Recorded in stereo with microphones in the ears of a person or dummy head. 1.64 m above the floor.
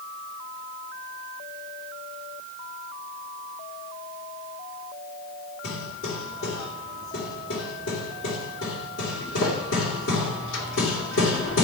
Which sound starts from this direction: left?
Hammering, at 5.6 s.